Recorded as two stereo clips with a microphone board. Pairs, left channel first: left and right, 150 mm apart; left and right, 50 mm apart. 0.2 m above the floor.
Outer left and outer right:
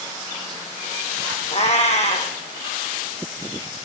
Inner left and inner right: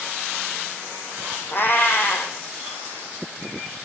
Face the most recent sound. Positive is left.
turn(degrees=45)  # may be behind; listen again after turning